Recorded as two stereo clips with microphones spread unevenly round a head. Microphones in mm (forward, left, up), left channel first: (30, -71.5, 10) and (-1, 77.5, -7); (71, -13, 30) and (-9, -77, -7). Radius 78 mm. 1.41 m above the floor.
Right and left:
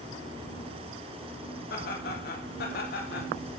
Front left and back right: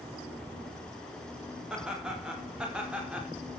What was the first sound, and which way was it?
Laughter, 60° right.